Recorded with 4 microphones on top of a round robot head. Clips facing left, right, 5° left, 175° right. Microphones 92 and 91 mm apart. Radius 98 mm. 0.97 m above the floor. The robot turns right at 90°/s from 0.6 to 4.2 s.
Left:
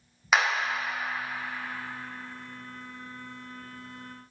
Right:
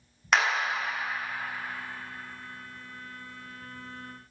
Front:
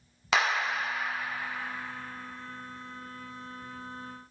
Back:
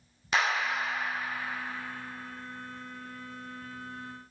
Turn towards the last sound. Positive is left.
turn(degrees=-30)